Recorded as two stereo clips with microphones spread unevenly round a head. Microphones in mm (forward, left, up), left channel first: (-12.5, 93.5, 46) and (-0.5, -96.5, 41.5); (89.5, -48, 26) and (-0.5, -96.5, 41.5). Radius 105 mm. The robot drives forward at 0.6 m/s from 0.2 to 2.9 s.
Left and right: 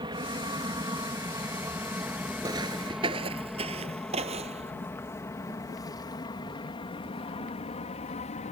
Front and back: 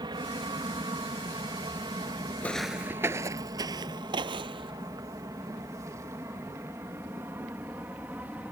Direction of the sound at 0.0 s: 140° right.